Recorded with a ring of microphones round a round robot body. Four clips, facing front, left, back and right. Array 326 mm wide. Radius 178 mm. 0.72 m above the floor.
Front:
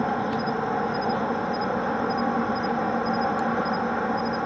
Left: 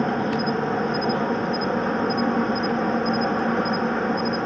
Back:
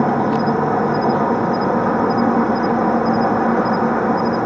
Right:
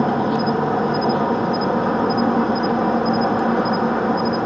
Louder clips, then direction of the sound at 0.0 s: Right 5 dB, back 9 dB; 160° right.